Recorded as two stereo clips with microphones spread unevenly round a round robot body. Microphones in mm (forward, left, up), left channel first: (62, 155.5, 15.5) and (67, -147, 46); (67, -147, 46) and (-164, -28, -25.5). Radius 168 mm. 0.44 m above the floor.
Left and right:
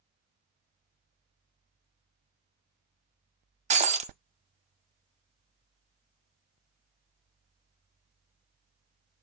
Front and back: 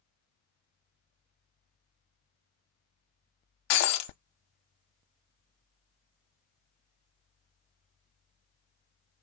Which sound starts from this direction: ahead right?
Breaking glass, at 3.7 s.